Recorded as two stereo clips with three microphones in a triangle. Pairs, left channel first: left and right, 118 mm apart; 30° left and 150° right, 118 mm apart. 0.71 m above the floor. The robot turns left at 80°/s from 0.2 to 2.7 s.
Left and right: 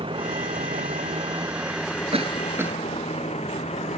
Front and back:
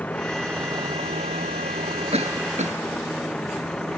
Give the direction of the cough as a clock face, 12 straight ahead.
4 o'clock.